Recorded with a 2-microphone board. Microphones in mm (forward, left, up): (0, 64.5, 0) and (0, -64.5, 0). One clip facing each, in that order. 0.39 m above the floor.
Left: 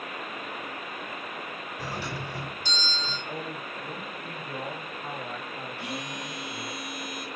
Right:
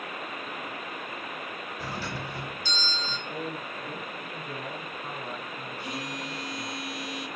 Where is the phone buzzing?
75° left (ahead or behind), 4.5 m.